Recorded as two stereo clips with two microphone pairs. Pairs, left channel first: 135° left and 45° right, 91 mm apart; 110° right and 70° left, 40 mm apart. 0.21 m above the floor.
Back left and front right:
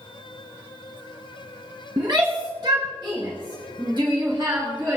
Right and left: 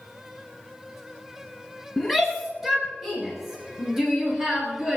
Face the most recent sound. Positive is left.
turn(degrees=15)